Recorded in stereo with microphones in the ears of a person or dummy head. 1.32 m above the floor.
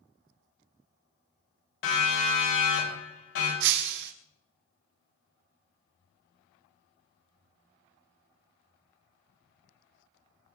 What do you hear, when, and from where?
1.8 s a siren: 75° left (ahead or behind), 8.5 m; by 3.5 s 80° left, 10 m
3.6 s breaking glass: 55° right (ahead or behind), 1.4 m